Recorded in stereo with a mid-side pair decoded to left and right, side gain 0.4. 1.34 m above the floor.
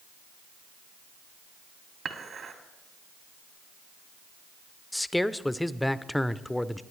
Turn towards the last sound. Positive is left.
turn(degrees=10)